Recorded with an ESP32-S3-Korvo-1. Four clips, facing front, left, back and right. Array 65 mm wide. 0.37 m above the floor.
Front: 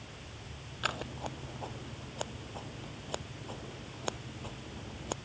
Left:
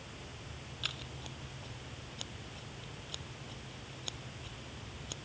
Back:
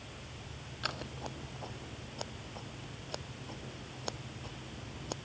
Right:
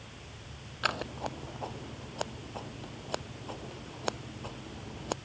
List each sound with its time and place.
0.8 s scissors: 80° right